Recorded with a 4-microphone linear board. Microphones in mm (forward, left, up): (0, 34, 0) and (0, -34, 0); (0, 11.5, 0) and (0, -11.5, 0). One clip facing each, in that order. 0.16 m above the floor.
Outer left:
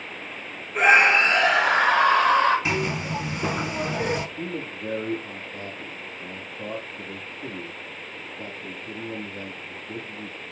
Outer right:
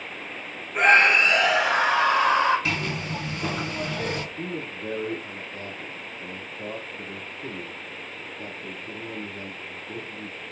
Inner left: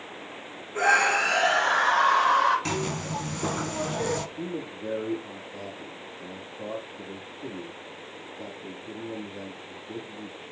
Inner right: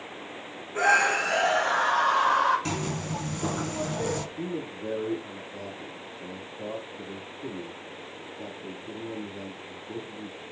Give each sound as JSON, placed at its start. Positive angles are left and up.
{"t": 0.8, "sound": "a scream", "side_deg": 0, "distance_m": 1.1}
{"t": 2.6, "sound": "a zipper", "side_deg": 20, "distance_m": 0.6}
{"t": 4.4, "sound": "a man speaking", "side_deg": 35, "distance_m": 3.5}